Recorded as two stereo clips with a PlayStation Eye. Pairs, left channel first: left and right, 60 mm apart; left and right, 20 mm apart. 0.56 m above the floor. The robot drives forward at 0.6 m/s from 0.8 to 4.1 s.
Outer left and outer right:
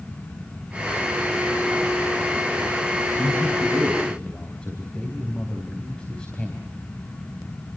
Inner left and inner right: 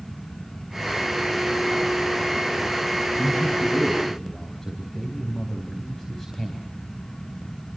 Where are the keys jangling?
I don't hear keys jangling.